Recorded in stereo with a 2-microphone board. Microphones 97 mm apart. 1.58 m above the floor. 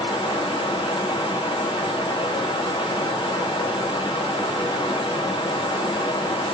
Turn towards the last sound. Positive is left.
turn(degrees=60)  # may be behind; listen again after turning